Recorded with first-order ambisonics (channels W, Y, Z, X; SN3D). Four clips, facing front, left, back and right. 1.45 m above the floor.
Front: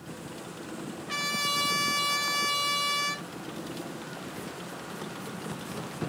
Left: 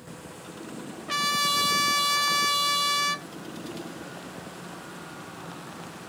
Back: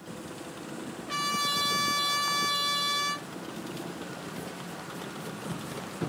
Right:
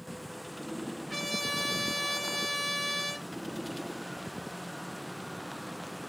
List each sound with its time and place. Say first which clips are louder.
1.1 s a trumpet: left 9 dB, even; 85° left, 0.7 m